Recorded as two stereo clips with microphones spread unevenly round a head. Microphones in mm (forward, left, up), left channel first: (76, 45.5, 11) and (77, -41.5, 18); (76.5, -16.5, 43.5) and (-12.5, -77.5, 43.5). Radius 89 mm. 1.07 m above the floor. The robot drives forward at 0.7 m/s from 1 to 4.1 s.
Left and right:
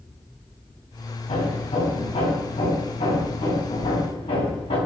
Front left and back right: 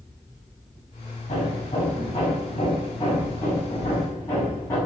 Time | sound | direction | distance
1.3 | hammering | 85° left | 5 m